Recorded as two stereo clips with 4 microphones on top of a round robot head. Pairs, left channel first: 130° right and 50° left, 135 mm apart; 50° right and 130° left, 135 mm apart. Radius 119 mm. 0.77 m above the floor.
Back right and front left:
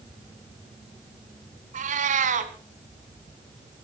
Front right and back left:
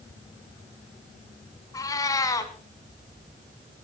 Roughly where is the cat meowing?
Ahead.